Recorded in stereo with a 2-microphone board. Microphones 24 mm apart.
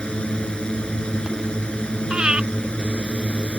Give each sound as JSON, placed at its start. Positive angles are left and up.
{"t": 0.0, "sound": "a drone", "side_deg": 50}
{"t": 2.1, "sound": "breathing", "side_deg": -45}